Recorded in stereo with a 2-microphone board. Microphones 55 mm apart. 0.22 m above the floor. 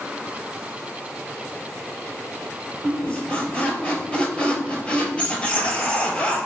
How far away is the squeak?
About 0.7 m.